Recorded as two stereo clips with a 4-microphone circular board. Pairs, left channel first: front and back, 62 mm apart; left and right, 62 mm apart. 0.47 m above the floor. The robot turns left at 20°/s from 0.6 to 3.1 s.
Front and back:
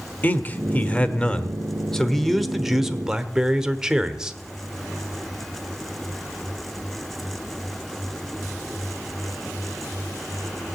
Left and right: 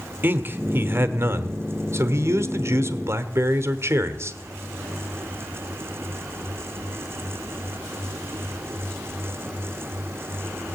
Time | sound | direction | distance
0.2 | a man speaking | 50° right | 1.1 m